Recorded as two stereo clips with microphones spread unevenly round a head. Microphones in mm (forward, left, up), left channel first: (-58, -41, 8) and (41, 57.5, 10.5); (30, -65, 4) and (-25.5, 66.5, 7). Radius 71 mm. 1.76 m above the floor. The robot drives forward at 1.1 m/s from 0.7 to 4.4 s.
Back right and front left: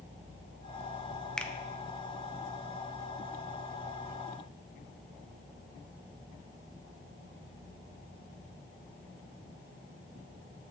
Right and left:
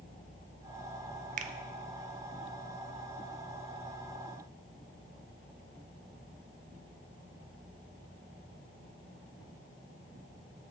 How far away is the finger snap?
About 0.6 m.